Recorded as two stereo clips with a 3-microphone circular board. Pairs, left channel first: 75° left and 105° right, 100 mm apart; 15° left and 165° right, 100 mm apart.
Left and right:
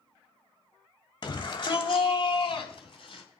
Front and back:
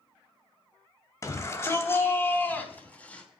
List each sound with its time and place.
1.2 s a shout: 65° left, 2 m; by 3.2 s 90° left, 3.5 m